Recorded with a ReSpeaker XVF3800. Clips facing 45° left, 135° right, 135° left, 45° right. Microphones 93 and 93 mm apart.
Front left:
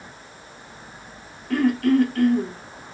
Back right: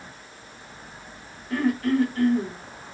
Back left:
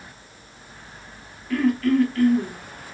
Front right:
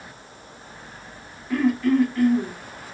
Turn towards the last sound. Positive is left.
turn(degrees=30)